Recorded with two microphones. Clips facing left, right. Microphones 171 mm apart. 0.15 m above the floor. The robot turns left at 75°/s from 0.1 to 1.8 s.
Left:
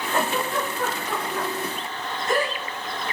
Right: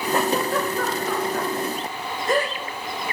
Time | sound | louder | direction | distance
0.1 | a giggle | right 3 dB | 20° right (ahead or behind) | 9 m